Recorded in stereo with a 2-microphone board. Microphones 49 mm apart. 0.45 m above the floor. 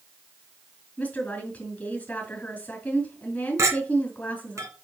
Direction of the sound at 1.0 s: 35° left (ahead or behind).